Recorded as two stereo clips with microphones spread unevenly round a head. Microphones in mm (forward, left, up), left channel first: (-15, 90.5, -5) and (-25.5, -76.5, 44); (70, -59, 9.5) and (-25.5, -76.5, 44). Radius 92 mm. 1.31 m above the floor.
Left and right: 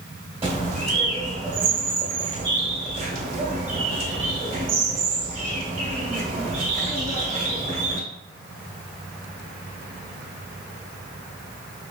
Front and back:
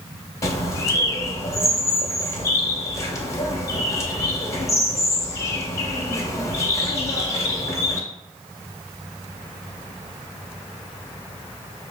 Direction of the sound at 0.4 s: 55° right.